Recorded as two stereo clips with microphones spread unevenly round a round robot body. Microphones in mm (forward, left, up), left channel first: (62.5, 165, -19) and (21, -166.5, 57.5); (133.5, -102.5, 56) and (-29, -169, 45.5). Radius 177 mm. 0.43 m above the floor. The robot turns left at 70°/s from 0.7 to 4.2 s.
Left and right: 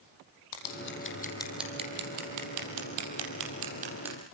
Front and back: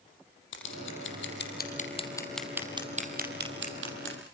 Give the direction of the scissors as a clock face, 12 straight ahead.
10 o'clock.